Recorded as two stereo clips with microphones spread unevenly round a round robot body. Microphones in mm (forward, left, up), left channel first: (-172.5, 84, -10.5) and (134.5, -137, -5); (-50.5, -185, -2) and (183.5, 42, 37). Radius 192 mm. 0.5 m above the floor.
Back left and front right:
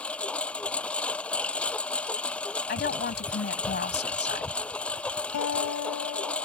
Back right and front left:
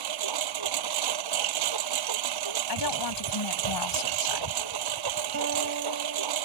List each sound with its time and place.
0.0 s a lawn mower: 55° left
2.7 s a woman speaking: 155° right
5.3 s a guitar: 95° left